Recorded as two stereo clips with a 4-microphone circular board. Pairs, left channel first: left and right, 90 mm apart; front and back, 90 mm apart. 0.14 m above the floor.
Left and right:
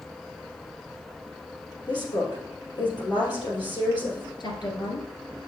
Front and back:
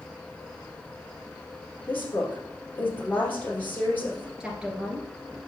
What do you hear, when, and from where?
1.9 s a woman speaking: 65° left, 3.5 m
4.4 s a woman speaking: 100° left, 2.5 m